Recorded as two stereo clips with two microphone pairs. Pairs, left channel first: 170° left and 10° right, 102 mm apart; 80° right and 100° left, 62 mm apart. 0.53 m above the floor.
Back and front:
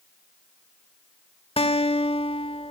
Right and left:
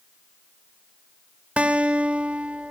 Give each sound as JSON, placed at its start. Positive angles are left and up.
{"t": 1.6, "sound": "a guitar", "azimuth_deg": 165, "distance_m": 1.4}